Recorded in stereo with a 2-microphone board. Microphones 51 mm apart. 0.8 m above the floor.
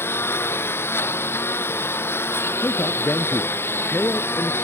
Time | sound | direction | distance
0.0 | a lawn mower | 50° left (ahead or behind) | ?
2.6 | a man speaking | 45° left (ahead or behind) | ?